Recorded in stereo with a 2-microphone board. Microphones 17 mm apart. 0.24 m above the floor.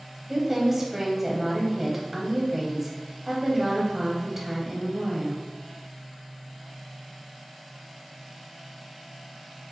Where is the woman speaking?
15° right (ahead or behind), 0.9 m.